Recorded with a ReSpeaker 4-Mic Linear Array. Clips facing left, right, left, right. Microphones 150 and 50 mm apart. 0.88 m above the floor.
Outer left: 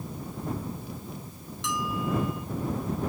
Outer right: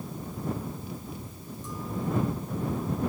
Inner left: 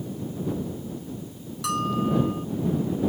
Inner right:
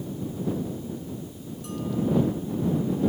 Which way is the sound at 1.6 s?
85° left.